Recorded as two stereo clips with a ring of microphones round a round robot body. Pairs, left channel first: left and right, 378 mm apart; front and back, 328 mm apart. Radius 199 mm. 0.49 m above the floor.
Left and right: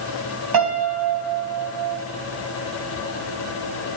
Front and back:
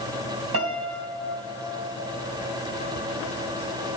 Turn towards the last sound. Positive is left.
turn(degrees=-125)